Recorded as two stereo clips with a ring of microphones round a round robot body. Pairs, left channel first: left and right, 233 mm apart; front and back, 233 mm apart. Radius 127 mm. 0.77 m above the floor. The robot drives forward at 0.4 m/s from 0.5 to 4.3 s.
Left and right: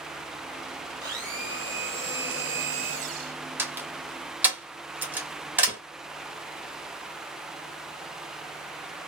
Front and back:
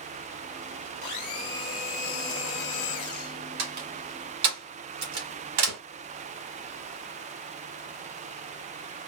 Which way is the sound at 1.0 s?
15° right.